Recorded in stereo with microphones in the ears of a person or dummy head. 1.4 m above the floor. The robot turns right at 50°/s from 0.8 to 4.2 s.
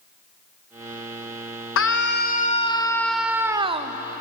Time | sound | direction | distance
1.8 | a scream | 115° left | 1.2 m